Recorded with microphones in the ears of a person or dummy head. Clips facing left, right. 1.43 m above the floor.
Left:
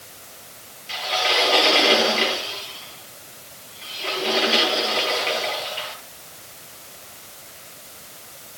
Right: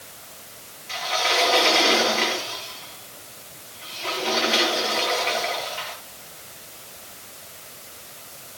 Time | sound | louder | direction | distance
0.9 | a sliding door | left 1 dB | 45° left (ahead or behind) | 9 m